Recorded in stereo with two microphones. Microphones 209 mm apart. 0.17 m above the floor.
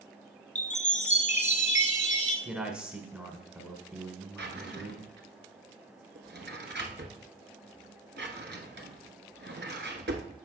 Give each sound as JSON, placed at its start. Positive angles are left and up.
{"t": 0.6, "sound": "a chime", "side_deg": 35, "distance_m": 1.0}
{"t": 2.5, "sound": "a man speaking", "side_deg": -5, "distance_m": 1.0}
{"t": 4.4, "sound": "a drawer", "side_deg": -55, "distance_m": 0.9}